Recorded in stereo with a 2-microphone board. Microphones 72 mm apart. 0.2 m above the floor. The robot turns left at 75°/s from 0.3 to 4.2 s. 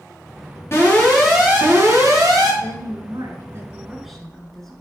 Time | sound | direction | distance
0.7 | an alarm | 40° left | 5 m
2.6 | a woman speaking | 70° right | 2.5 m